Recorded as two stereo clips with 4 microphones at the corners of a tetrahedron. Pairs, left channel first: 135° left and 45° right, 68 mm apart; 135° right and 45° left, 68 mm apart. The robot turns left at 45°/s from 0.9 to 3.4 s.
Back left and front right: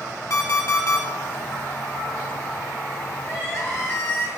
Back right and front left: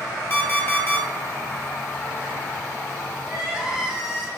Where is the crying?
125° left, 1.1 m; by 4.3 s 120° left, 1.1 m.